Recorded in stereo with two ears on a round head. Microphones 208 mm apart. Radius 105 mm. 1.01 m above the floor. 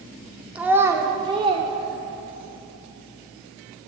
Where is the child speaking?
5° right (ahead or behind), 2.5 m; by 2.6 s 40° right (ahead or behind), 3 m.